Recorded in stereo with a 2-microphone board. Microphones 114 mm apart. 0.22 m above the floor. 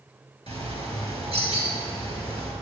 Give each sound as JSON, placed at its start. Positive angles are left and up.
{"t": 0.5, "sound": "a bird", "side_deg": 50, "distance_m": 3.0}